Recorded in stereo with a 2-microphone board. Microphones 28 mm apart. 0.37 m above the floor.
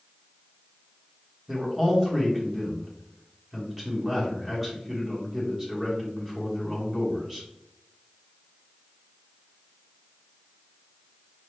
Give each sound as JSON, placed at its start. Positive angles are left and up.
{"t": 1.5, "sound": "a man speaking", "side_deg": -15, "distance_m": 1.6}